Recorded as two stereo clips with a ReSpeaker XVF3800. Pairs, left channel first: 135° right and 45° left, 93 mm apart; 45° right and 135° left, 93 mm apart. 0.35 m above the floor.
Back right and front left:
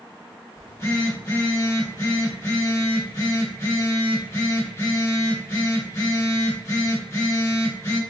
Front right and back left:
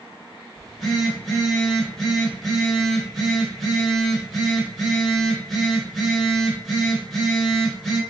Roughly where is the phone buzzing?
Behind right.